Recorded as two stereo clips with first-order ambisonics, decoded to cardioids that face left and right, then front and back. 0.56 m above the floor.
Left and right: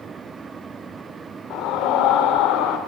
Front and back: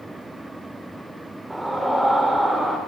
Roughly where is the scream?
Left.